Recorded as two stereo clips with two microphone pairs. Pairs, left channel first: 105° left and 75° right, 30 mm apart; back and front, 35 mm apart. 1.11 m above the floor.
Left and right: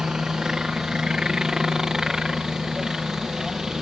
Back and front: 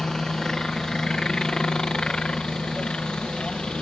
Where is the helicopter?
125° right; by 3.8 s 140° right.